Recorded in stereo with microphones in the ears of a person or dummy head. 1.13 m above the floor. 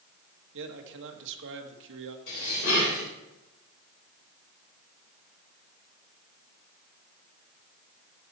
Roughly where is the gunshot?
No gunshot in this recording.